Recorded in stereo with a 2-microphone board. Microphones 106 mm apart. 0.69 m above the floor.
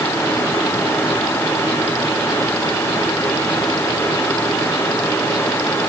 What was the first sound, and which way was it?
Only background noise.